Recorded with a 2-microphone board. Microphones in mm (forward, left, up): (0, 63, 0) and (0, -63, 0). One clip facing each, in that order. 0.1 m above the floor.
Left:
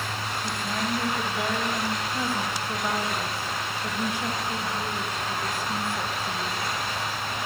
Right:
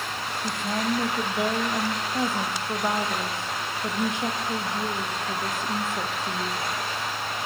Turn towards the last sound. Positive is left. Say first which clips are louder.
# right 4 dB
turn(degrees=-20)  # may be behind; listen again after turning